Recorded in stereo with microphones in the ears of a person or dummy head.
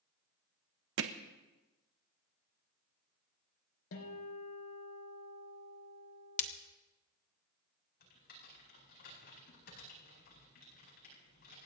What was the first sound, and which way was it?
Hammering, 65° right (ahead or behind).